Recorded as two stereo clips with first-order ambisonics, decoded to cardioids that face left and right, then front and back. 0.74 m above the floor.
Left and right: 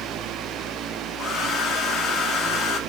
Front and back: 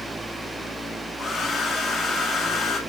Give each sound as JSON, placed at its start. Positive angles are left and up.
{"t": 1.2, "sound": "a hair dryer", "azimuth_deg": 80, "distance_m": 1.3}